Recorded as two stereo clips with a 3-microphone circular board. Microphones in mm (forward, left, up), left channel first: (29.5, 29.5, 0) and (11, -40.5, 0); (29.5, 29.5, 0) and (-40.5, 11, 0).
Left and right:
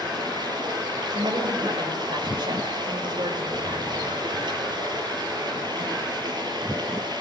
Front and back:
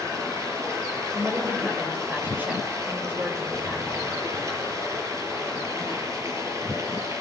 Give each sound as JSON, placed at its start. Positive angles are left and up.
{"t": 0.0, "sound": "running water", "azimuth_deg": -115, "distance_m": 7.5}
{"t": 1.1, "sound": "a woman speaking", "azimuth_deg": -100, "distance_m": 5.5}